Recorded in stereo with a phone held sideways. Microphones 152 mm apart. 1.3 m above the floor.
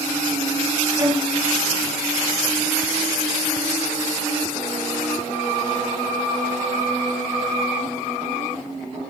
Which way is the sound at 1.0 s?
20° right (ahead or behind).